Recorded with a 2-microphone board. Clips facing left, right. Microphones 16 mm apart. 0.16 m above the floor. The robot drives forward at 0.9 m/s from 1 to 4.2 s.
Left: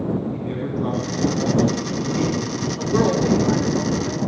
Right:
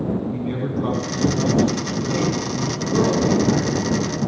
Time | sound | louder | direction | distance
0.3 | a man speaking | right 1 dB | 15° right (ahead or behind) | 1.7 m
2.8 | a woman speaking | left 1 dB | 40° left (ahead or behind) | 6 m